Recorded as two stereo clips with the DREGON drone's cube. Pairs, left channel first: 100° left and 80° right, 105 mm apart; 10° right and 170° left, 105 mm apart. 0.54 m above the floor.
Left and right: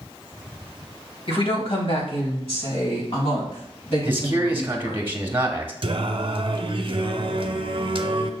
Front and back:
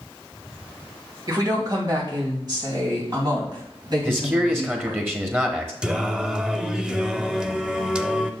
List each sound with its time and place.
1.3 s a woman speaking: 120° left, 2 m; by 5.0 s 125° left, 4.5 m
4.0 s a man speaking: 135° right, 1.1 m
5.8 s singing: 110° right, 0.5 m